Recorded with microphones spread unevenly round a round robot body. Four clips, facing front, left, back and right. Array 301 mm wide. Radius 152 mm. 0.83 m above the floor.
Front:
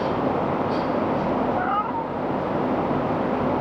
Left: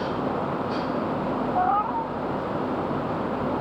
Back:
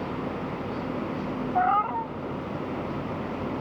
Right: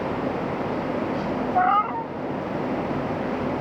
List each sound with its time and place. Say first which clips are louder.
1.6 s a cat meowing: right 3 dB, even; 95° right